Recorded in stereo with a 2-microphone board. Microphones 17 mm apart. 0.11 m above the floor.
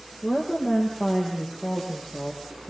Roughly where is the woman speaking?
Left.